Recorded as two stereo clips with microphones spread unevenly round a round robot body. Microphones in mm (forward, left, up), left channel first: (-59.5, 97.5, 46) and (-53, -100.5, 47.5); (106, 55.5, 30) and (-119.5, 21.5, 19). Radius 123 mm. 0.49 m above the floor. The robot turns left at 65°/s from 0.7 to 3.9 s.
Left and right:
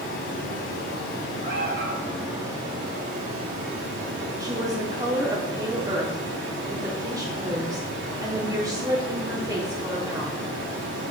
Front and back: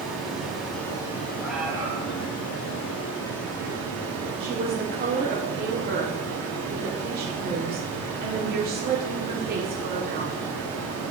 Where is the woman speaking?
155° right, 1.1 m.